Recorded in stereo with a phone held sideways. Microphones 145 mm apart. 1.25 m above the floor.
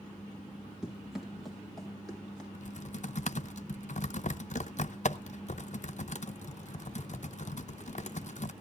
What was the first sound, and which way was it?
Running footsteps, 5° right (ahead or behind).